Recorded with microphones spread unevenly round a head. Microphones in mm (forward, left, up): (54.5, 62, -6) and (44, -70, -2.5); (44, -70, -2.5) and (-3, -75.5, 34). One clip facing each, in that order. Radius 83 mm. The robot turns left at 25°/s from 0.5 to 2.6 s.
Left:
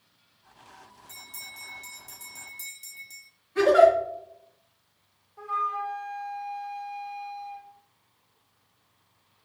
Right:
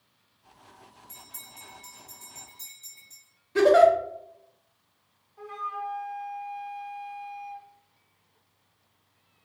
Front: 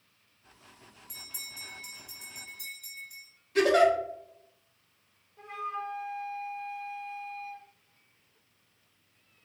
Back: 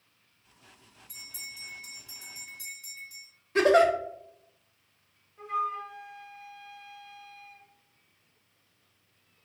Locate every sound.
1.1 s a bell: 115° left, 2.0 m; by 3.3 s 75° left, 2.0 m
3.5 s a giggle: 110° right, 0.7 m
5.4 s a flute: 55° left, 1.1 m